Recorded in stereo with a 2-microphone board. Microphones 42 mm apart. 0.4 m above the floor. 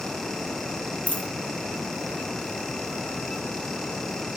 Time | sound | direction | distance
1.1 | a dropped coin | 35° left (ahead or behind) | 2.0 m